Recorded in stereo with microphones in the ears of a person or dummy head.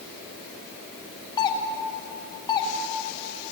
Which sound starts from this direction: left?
A doorbell, at 1.4 s.